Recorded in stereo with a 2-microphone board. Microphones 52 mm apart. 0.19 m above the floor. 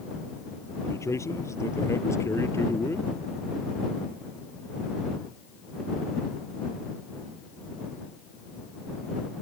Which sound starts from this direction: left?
A man speaking, at 0.8 s.